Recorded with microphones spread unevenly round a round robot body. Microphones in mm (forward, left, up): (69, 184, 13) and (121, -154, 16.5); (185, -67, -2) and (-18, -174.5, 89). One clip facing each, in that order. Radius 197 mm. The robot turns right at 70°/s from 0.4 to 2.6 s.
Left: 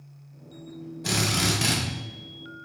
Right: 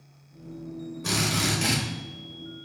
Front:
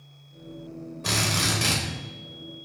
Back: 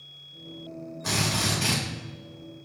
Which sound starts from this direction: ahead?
A drill, at 1.0 s.